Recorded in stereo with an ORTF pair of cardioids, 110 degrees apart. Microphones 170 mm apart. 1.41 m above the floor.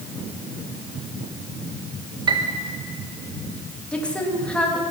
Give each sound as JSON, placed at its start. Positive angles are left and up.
{"t": 2.3, "sound": "a piano", "azimuth_deg": -30, "distance_m": 1.2}
{"t": 3.9, "sound": "a woman speaking", "azimuth_deg": 10, "distance_m": 2.5}